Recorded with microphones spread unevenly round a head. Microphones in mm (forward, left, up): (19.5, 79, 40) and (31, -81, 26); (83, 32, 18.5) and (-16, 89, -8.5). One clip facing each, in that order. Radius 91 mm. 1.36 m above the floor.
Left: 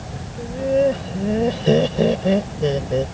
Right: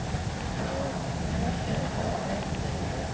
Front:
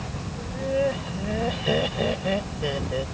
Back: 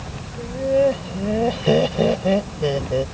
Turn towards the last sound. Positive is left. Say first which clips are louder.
# left 17 dB, back 7 dB
turn(degrees=95)